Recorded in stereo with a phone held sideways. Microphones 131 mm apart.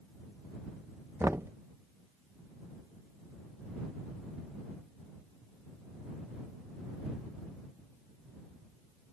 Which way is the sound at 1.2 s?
20° right (ahead or behind).